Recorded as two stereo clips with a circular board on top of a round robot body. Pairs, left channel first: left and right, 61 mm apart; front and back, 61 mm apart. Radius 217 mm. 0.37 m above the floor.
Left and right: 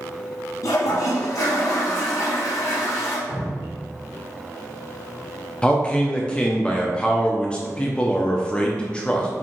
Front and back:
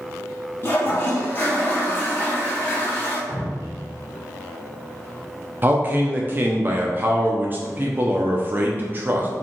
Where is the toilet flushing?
55° left, 0.8 m.